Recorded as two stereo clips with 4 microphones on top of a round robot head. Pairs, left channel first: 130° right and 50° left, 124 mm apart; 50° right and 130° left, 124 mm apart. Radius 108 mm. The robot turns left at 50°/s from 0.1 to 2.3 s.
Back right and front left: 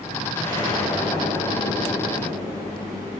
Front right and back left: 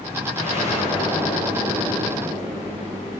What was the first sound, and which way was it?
An explosion, 70° right.